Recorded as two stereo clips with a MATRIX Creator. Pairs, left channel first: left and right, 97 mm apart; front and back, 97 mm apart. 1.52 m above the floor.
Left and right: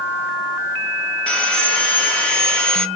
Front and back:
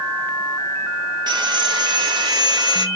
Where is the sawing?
165° left, 0.5 m.